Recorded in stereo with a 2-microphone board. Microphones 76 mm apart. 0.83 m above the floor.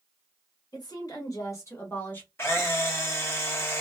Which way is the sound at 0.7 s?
50° left (ahead or behind).